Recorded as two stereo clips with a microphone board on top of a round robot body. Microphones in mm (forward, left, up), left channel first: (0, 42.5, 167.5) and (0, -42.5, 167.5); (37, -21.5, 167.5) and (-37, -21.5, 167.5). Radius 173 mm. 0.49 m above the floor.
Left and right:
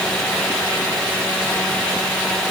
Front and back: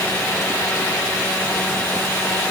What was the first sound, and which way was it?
Only background noise.